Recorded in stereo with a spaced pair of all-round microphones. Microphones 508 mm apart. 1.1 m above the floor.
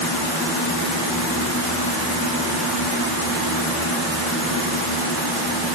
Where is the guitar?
No guitar in this recording.